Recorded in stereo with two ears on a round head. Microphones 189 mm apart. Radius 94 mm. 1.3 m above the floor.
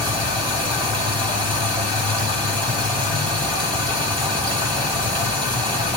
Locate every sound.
0.0 s running water: 25° right (ahead or behind), 1.5 m